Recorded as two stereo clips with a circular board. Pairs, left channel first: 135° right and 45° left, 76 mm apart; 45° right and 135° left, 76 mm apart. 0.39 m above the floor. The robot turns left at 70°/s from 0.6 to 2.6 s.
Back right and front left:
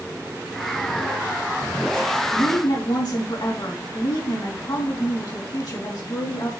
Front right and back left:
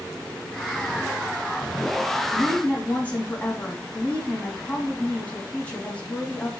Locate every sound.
2.3 s a woman speaking: 95° right, 3.5 m; by 6.5 s 115° right, 3.5 m